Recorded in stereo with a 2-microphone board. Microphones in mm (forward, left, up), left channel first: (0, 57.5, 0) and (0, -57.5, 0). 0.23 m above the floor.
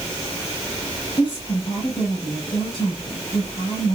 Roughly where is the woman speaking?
Left.